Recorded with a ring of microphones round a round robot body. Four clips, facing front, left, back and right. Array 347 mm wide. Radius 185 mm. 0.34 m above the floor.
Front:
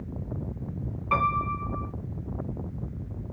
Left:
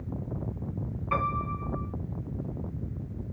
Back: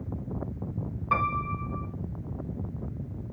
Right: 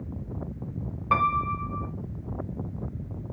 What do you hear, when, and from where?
1.1 s a piano: 95° right, 1.9 m